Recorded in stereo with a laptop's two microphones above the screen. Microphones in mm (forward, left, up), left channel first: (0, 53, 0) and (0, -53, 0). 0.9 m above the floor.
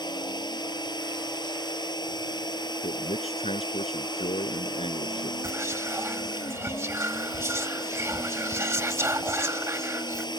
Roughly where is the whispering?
Right.